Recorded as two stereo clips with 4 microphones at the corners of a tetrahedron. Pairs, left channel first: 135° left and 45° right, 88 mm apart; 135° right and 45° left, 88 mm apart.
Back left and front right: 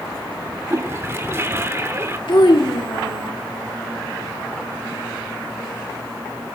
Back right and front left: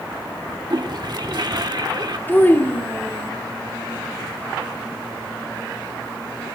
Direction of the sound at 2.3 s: 160° left.